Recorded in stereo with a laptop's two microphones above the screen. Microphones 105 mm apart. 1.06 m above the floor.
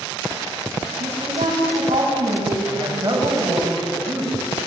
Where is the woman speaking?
75° right (ahead or behind), 8 m.